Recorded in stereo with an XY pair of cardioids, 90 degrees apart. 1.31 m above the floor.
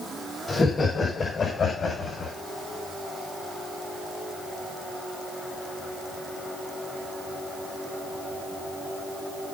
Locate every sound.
0.5 s laughter: 35° left, 6 m; by 2.4 s 50° left, 6 m